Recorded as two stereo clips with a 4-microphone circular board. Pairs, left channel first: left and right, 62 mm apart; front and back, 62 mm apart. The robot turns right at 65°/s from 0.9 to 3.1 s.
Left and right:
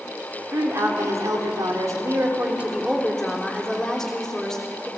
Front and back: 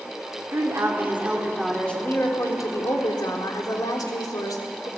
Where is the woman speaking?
135° right, 3.5 m; by 4.9 s 10° left, 3.5 m.